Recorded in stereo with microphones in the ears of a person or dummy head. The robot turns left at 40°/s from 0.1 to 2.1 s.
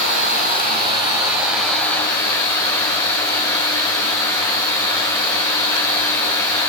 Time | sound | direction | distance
0.0 | running water | 120° right | 2.5 m